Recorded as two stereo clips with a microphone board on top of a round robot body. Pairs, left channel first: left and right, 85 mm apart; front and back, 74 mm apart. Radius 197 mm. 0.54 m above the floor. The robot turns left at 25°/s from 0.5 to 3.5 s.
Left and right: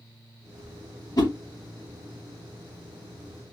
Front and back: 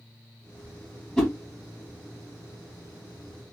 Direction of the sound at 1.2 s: 80° left.